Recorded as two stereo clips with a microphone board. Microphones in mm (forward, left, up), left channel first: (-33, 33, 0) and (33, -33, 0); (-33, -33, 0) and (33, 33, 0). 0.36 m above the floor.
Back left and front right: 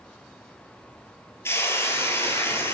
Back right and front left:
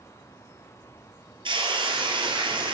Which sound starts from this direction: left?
A hiss, at 1.4 s.